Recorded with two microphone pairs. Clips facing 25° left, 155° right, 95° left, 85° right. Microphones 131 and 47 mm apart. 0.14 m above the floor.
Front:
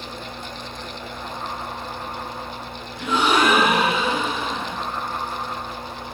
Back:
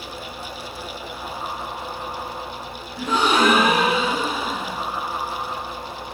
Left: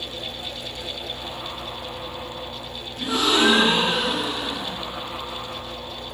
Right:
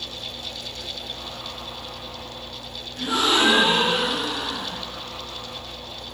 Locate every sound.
3.0 s a gasp: 130° right, 1.4 m